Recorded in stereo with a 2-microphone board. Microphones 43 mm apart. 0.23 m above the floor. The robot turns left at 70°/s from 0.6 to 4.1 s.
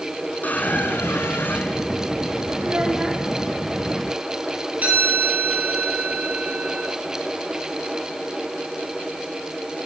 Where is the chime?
40° right (ahead or behind), 8 m.